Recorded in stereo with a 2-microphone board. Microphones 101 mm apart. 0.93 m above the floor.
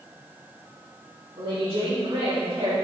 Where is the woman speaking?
50° right (ahead or behind), 1.7 m; by 2.7 s 75° right (ahead or behind), 2 m.